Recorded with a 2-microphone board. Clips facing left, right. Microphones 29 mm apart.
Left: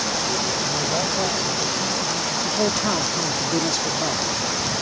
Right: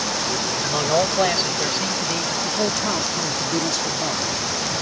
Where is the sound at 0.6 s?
75° right (ahead or behind); by 2.3 s 80° right.